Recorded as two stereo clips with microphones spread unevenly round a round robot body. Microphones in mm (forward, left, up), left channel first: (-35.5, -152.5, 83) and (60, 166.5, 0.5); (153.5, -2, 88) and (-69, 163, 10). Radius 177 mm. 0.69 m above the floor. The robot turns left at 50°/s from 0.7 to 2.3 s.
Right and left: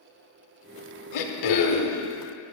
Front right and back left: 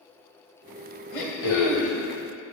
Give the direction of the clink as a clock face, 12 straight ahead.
I don't hear a clink.